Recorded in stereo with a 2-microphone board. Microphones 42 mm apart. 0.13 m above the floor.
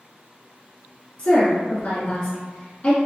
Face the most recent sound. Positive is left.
turn(degrees=35)  # may be behind; listen again after turning